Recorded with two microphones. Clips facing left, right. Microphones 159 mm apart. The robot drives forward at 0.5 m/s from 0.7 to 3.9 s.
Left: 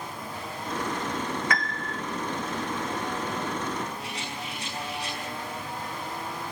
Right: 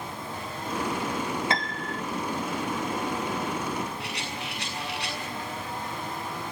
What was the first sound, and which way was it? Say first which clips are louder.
A piano: right 1 dB; 25° right (ahead or behind).